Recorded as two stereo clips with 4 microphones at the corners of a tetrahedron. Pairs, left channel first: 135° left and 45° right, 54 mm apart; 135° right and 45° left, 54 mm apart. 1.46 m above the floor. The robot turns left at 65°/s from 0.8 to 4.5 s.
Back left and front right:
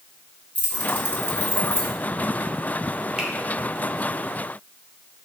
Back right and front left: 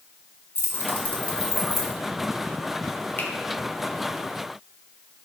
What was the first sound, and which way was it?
Keys jangling, 170° right.